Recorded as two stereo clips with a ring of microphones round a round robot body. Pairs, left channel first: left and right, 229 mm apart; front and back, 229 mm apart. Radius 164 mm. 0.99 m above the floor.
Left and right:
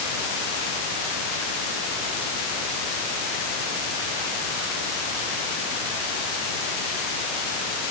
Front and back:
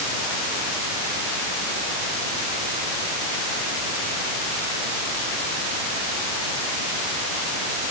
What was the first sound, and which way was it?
Only background noise.